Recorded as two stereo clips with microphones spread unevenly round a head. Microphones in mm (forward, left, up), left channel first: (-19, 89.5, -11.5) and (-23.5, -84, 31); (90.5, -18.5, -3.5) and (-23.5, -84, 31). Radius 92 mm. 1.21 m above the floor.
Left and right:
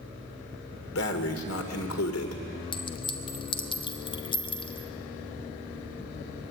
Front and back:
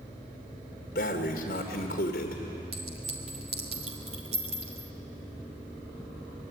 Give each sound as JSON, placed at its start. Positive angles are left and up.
{"t": 0.9, "sound": "breathing", "azimuth_deg": 75, "distance_m": 2.0}
{"t": 2.7, "sound": "a clink", "azimuth_deg": 155, "distance_m": 1.5}